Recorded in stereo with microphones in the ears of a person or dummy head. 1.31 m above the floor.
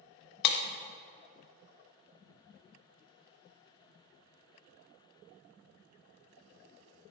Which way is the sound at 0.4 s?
60° left (ahead or behind).